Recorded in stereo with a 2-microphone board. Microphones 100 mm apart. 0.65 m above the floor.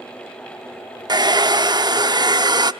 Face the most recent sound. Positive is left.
turn(degrees=-45)  # may be behind; listen again after turning